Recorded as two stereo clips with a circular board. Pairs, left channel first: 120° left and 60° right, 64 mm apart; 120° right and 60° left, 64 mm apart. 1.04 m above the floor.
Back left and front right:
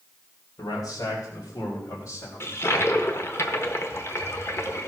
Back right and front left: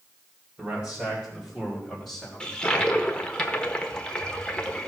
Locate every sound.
0.6 s a man speaking: 130° left, 3.5 m; by 2.6 s 150° left, 3 m
2.4 s a toilet flushing: 165° left, 1.4 m